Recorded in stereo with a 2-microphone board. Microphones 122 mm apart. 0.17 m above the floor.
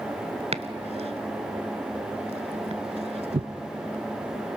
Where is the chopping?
60° right (ahead or behind), 0.6 m.